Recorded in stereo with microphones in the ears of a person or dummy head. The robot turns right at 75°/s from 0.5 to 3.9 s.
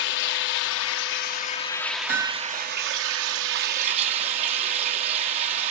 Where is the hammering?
30° right (ahead or behind), 1.0 m.